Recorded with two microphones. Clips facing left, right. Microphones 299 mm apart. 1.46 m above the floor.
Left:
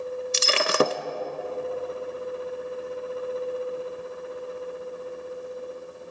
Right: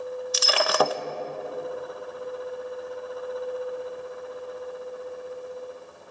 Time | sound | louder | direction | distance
0.3 | breaking glass | left 1 dB | 25° left (ahead or behind) | 0.7 m